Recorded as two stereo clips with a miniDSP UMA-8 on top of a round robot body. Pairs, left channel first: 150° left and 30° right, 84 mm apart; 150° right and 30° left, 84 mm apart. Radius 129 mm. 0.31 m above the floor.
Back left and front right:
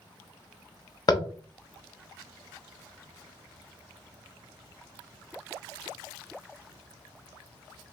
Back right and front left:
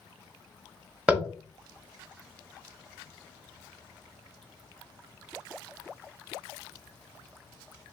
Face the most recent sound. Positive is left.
turn(degrees=105)